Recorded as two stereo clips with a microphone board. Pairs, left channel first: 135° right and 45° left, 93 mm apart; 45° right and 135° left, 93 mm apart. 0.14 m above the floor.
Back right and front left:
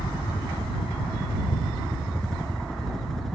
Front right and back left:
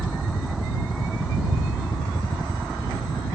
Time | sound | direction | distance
0.0 | a helicopter | 60° right | ?